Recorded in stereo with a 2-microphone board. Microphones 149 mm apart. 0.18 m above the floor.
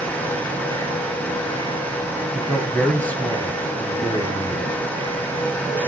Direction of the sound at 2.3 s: 5° right (ahead or behind).